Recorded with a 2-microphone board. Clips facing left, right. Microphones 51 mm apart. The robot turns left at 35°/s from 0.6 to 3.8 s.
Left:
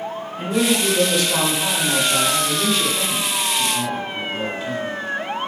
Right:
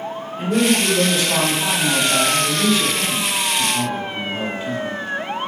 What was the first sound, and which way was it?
A man speaking, 25° right.